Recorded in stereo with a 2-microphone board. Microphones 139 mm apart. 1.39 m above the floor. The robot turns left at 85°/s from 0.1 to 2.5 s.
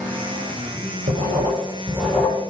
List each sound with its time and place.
1.1 s writing: 90° right, 7.5 m; by 2.4 s 160° left, 7.5 m